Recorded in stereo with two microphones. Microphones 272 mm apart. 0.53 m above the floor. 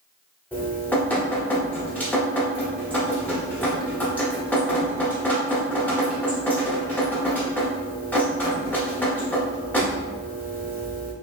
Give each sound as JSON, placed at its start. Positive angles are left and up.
{"t": 0.5, "sound": "dripping", "side_deg": 5, "distance_m": 0.9}